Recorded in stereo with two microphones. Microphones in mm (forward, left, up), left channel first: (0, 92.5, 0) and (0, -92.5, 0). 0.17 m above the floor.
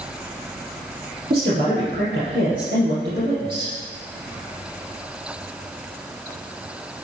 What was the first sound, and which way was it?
A woman speaking, 55° right (ahead or behind).